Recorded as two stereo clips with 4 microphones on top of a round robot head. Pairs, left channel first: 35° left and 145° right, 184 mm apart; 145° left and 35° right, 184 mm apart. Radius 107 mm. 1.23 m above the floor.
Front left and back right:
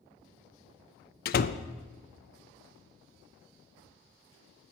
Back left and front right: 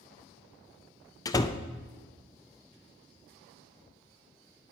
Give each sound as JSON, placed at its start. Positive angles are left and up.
{"t": 1.2, "sound": "a door slam", "azimuth_deg": 75, "distance_m": 0.5}